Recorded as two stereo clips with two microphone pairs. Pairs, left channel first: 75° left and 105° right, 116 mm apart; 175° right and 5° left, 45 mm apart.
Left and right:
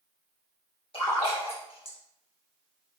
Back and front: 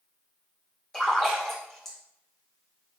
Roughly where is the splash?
Left.